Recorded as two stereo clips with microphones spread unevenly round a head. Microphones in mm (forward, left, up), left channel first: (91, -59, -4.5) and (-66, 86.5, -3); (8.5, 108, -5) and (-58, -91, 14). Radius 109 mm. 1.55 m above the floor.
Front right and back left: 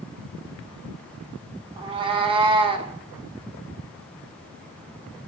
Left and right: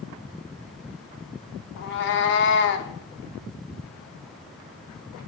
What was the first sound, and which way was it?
A cat meowing, 80° left.